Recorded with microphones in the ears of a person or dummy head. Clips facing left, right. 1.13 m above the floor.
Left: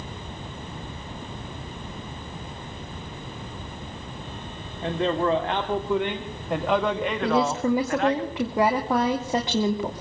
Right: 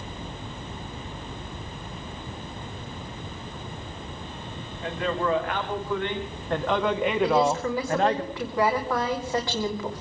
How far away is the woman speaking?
About 2.5 m.